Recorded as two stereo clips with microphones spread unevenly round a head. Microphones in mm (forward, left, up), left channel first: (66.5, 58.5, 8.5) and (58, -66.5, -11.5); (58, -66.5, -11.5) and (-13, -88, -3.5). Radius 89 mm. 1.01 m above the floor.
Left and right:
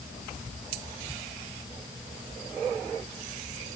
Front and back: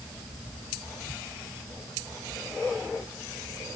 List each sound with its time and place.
Only background noise.